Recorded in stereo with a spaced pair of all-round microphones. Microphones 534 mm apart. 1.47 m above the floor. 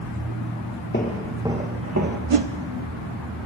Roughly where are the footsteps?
Centre.